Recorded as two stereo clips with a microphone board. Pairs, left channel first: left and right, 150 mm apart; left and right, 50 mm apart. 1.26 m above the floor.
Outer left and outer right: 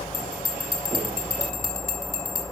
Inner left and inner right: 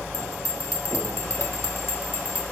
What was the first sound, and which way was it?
A bell, 75° left (ahead or behind).